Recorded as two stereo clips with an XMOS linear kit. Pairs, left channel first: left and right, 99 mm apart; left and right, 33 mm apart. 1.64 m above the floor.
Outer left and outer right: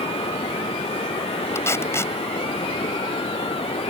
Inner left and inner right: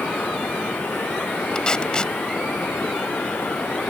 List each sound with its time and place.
0.0 s running water: 75° left (ahead or behind)
1.6 s tape being pulled: 25° left (ahead or behind)